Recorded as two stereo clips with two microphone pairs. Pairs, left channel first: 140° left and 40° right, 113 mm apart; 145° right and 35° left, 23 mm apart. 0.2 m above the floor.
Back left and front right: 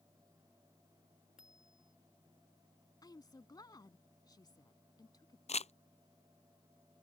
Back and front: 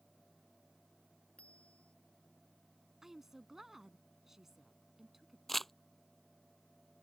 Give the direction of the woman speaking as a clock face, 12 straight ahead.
9 o'clock.